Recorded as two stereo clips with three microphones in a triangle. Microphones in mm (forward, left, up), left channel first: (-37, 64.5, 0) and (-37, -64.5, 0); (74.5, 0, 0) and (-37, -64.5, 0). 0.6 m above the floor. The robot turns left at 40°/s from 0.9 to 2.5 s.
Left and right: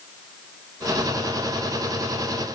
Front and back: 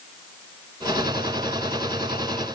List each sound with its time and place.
Only background noise.